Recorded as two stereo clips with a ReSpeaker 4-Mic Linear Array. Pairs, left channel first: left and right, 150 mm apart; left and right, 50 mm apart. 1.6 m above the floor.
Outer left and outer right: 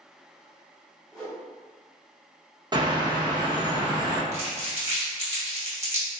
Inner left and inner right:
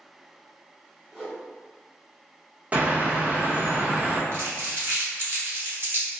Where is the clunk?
No clunk in this recording.